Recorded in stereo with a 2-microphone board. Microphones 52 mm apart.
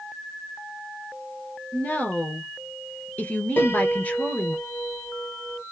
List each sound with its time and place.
1.7 s a woman speaking: 30° left (ahead or behind), 1.4 m
3.6 s a piano: 40° left (ahead or behind), 1.4 m